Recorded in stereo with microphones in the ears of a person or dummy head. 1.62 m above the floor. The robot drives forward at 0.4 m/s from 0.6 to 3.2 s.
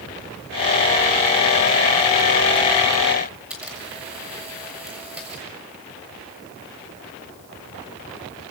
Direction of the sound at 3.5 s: 10° right (ahead or behind).